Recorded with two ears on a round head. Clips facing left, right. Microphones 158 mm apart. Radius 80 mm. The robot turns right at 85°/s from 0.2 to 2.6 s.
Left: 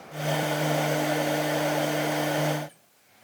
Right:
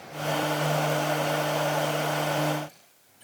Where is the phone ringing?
I don't hear a phone ringing.